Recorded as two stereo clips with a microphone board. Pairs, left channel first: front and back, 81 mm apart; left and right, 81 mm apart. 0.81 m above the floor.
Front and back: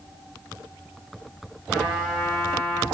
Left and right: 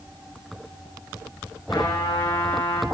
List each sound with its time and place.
1.7 s a trumpet: 95° left, 5 m